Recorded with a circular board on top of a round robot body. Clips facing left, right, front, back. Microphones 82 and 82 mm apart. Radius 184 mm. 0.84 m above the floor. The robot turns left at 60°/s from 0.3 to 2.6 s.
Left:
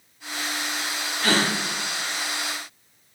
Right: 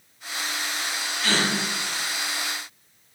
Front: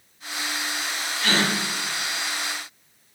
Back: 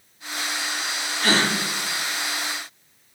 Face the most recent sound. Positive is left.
turn(degrees=50)